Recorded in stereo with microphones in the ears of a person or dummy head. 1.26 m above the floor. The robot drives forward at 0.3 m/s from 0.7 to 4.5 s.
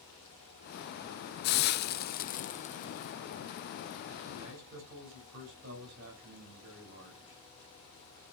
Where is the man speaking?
60° right (ahead or behind), 5.5 m.